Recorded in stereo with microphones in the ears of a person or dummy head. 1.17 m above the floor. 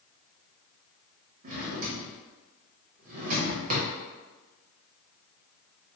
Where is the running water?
No running water in this recording.